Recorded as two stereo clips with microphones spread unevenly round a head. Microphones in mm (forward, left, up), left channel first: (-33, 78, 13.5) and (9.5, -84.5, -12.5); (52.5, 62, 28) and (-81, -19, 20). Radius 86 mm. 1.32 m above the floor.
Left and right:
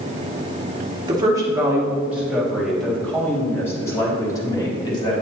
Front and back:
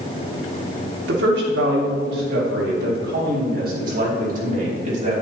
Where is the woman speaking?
145° right, 2 m; by 5.1 s 170° left, 3.5 m.